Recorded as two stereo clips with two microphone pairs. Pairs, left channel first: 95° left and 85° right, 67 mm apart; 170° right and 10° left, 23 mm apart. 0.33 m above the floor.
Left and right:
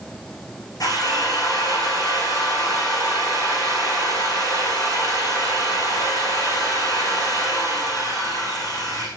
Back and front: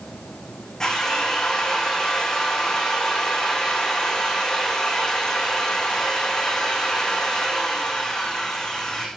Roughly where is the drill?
Behind left.